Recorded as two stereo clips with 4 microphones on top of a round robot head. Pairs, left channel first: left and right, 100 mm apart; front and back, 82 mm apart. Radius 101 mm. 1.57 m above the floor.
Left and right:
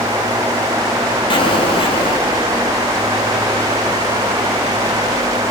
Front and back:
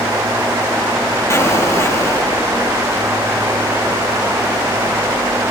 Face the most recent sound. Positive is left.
turn(degrees=55)